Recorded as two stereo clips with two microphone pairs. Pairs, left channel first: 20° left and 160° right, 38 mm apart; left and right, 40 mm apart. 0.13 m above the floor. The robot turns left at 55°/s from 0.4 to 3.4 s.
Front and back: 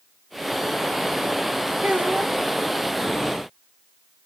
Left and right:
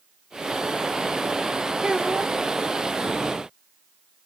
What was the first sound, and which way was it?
A child speaking, 150° right.